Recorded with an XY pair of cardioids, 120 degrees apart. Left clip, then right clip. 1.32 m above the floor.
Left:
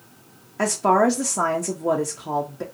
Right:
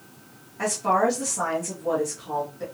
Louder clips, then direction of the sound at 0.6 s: Left 4 dB; 60° left.